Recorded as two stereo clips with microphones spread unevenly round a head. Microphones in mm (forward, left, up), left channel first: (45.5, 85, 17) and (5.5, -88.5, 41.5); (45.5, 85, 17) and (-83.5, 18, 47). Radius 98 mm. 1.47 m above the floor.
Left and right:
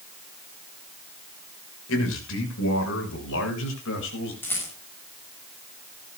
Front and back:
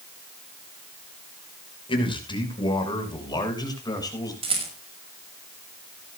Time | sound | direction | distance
1.9 | a man speaking | 85° left | 6.5 m
4.4 | a rattle | 160° left | 6.5 m